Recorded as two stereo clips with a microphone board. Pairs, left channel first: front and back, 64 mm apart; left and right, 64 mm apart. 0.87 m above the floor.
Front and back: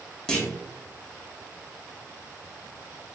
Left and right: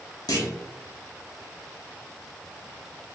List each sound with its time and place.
0.3 s a clunk: 80° left, 1.0 m